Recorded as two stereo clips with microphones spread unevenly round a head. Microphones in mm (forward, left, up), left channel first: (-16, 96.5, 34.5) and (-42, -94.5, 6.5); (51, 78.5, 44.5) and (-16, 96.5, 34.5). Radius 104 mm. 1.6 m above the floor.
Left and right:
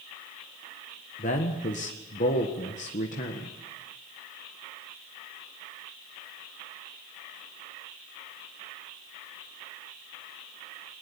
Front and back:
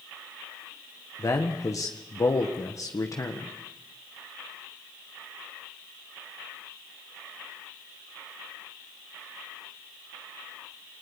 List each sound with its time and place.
1.2 s a man speaking: 25° left, 1.7 m